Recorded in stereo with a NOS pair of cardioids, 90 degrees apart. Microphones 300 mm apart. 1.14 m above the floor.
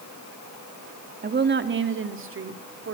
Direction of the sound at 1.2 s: 35° right.